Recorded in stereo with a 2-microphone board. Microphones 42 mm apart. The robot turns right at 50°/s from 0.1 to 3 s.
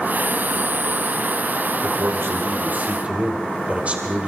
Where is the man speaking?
95° right, 2.5 m; by 4.3 s 35° right, 2.5 m.